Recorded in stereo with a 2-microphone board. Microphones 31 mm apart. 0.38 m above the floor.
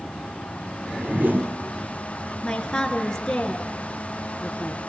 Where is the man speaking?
20° left (ahead or behind), 4.5 m.